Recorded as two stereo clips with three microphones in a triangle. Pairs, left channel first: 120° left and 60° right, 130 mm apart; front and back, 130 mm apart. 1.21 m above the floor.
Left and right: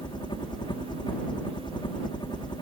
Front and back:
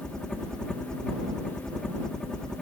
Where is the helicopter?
85° left.